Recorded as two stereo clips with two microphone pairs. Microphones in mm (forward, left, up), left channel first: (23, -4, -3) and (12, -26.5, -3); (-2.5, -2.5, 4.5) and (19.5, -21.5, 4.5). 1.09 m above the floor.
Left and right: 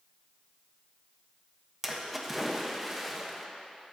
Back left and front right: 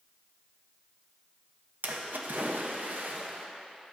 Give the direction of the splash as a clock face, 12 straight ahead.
1 o'clock.